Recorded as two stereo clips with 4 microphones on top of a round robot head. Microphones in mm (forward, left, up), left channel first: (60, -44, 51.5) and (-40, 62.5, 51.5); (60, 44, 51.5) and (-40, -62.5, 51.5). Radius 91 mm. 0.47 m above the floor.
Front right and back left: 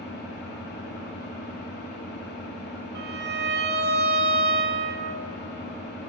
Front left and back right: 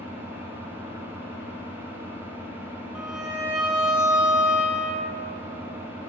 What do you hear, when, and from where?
0.0 s an engine running: 55° right, 1.9 m
3.0 s a violin: 140° left, 0.9 m